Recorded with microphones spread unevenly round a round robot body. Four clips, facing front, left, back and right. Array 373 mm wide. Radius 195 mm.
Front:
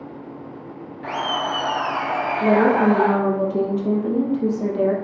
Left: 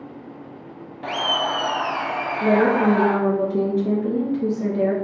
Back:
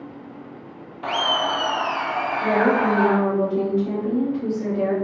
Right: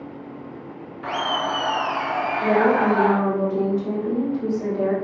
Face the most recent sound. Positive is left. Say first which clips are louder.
# left 1 dB, front 3 dB
turn(degrees=30)